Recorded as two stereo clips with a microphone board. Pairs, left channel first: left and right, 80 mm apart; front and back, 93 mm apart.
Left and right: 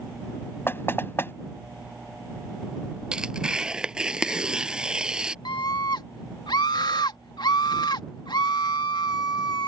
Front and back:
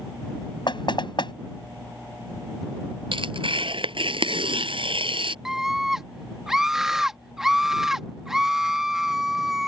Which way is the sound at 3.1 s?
170° right.